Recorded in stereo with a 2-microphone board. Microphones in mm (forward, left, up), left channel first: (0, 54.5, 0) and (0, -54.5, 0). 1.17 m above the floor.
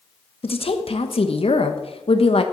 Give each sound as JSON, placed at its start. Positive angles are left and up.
{"t": 0.4, "sound": "a woman speaking", "side_deg": 60, "distance_m": 1.0}